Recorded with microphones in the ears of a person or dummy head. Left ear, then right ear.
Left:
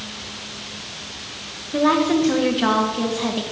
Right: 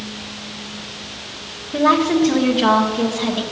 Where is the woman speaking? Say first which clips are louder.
Right 2 dB; 5° right (ahead or behind), 0.9 m.